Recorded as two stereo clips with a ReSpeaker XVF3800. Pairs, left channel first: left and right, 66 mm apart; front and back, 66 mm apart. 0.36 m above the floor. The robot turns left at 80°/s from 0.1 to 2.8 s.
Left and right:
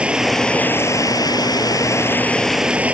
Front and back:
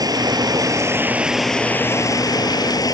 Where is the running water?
165° right; by 2.9 s 20° right.